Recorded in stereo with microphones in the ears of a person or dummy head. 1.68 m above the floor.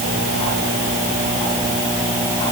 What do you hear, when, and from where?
Only background noise.